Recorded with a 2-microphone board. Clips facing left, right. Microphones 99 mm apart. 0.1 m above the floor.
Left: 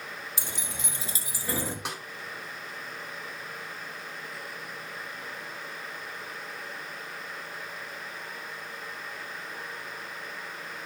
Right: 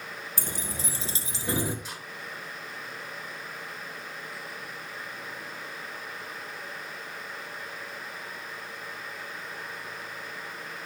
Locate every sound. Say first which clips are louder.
0.4 s keys jangling: right 2 dB; 45° right (ahead or behind), 1.5 m; by 1.8 s 15° right (ahead or behind), 1.2 m
1.9 s a snare drum: left 5 dB; 70° left (ahead or behind), 1.8 m